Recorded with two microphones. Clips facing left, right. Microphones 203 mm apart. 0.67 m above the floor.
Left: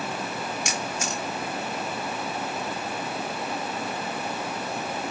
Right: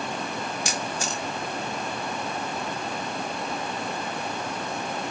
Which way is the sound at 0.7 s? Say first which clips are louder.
Even; 35° right (ahead or behind).